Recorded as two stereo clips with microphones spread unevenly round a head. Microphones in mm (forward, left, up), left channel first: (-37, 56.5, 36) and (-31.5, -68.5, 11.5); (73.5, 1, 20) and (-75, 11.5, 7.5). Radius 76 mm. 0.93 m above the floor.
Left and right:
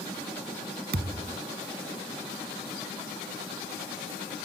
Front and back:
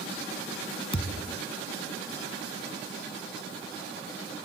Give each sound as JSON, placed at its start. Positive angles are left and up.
{"t": 0.9, "sound": "a thud", "azimuth_deg": -60}